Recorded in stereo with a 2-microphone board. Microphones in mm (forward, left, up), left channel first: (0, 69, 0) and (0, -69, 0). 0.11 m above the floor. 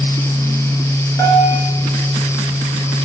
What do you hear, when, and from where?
1.2 s a bell: 20° left (ahead or behind), 1.6 m